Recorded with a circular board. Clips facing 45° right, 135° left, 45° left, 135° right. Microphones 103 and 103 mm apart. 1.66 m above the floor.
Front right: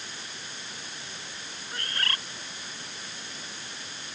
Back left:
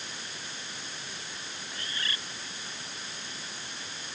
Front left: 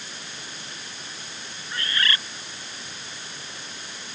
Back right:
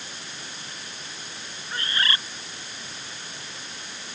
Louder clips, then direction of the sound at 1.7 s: Front right 5 dB, even; 75° right.